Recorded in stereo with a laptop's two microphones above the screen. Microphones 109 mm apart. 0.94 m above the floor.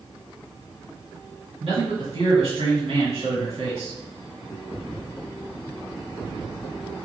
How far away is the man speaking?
About 1.9 m.